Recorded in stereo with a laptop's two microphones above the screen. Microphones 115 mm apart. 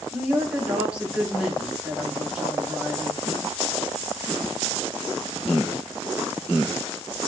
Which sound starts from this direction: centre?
A woman speaking, at 0.1 s.